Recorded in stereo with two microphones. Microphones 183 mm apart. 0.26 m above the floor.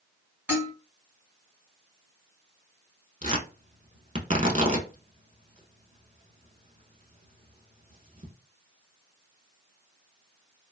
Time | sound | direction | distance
0.5 | dishes clattering | 10° right (ahead or behind) | 1.3 m
3.2 | tearing paper | 40° right (ahead or behind) | 0.6 m